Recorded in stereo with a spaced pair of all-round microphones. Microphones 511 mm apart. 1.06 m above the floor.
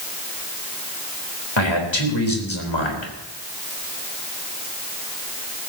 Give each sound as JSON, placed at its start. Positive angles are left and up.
{"t": 1.6, "sound": "a man speaking", "side_deg": 60, "distance_m": 4.0}